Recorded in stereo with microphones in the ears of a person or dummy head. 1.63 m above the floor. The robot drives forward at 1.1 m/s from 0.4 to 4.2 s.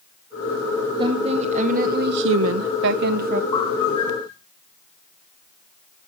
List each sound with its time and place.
1.0 s a woman speaking: 30° right (ahead or behind), 2.0 m; by 3.4 s 45° right (ahead or behind), 1.3 m
3.5 s a bird: 30° left (ahead or behind), 4 m; by 4.3 s 25° left (ahead or behind), 4.5 m